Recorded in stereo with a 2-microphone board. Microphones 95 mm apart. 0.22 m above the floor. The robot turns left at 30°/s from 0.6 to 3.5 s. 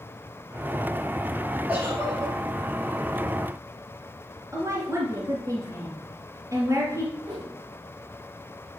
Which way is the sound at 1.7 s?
20° right (ahead or behind).